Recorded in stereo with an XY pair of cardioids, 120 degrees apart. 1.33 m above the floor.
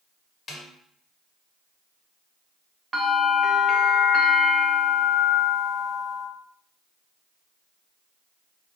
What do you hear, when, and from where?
0.5 s a snare drum: 50° left, 1.2 m
2.9 s a bell: 30° right, 0.9 m